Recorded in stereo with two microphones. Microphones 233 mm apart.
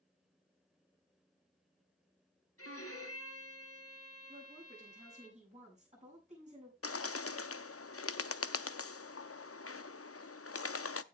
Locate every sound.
2.6 s a violin: 80° left, 3 m
4.3 s a woman speaking: 30° right (ahead or behind), 7.5 m
6.8 s a bird: 75° left (ahead or behind), 0.5 m